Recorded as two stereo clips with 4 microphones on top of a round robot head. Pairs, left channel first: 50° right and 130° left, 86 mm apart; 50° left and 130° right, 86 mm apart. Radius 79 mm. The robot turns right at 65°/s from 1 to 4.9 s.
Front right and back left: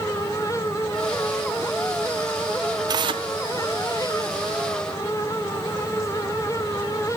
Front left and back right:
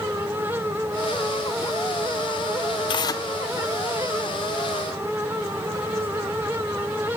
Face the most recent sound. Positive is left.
turn(degrees=-145)